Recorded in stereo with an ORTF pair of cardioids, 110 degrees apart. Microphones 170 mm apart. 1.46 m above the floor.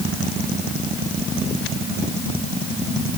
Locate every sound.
Only background noise.